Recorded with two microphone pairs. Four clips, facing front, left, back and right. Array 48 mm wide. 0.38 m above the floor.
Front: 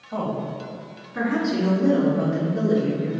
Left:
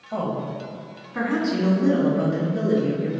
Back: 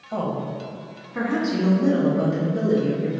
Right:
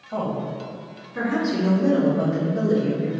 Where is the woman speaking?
150° left, 1.7 m; by 3.1 s 125° left, 5.5 m.